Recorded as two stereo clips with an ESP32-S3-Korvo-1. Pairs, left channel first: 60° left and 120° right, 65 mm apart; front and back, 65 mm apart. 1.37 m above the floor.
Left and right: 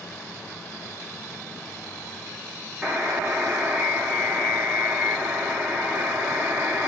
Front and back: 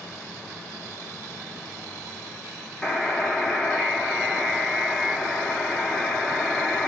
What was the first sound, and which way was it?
A buzzer, 75° right.